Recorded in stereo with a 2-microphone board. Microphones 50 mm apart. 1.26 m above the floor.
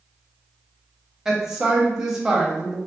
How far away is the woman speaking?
About 0.8 m.